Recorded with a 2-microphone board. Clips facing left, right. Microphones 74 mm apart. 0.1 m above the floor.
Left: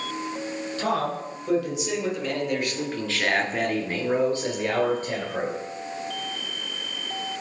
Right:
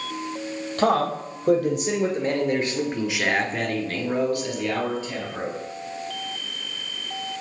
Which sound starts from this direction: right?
A man speaking, at 0.8 s.